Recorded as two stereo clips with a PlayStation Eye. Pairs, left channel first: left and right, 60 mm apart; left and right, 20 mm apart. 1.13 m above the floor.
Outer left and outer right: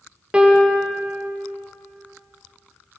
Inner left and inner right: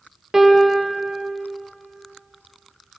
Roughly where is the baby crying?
I don't hear a baby crying.